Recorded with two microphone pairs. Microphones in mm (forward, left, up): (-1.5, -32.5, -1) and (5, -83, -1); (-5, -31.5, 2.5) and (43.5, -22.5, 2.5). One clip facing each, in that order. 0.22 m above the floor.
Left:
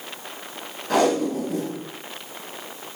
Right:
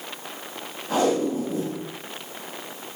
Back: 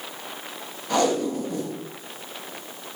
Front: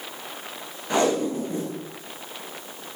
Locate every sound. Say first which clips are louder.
0.9 s tape being pulled: left 2 dB, even; 75° left, 1.5 m